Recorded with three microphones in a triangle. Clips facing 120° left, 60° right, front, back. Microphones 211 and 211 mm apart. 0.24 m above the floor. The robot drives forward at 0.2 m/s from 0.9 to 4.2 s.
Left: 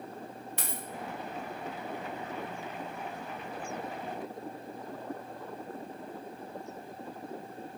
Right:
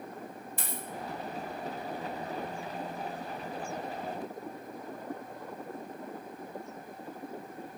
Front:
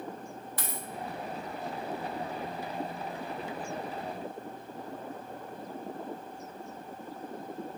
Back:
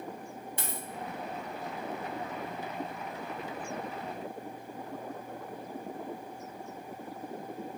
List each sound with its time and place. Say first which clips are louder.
0.6 s a dropped coin: right 1 dB, front 1 dB; 115° left, 0.6 m